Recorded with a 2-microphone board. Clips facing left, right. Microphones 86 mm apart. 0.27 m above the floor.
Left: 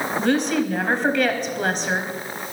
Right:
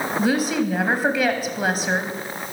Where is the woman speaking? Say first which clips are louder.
Even; 5° right (ahead or behind), 1.3 m.